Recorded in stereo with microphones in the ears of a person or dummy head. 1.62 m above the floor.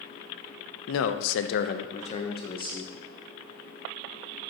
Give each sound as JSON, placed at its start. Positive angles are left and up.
{"t": 0.9, "sound": "a man speaking", "side_deg": 75, "distance_m": 0.6}